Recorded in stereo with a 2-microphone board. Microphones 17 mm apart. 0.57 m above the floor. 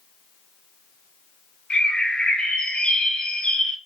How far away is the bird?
About 0.6 m.